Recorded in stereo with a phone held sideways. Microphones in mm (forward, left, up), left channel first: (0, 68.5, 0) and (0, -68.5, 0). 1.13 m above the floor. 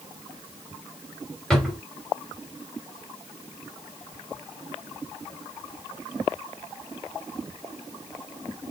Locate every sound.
1.5 s a drawer: 5° left (ahead or behind), 2.5 m